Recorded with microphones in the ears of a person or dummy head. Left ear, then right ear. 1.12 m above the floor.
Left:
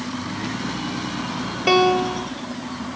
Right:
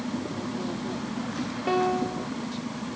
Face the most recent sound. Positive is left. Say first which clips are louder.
# left 9 dB
turn(degrees=80)